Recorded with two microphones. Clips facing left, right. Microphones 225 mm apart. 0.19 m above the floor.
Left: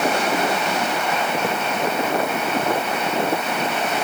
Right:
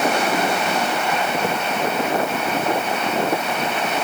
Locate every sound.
Only background noise.